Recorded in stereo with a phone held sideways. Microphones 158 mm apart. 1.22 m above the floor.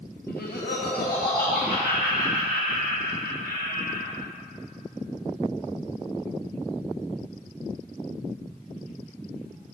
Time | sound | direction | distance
0.3 | laughter | 75° left (ahead or behind) | 0.6 m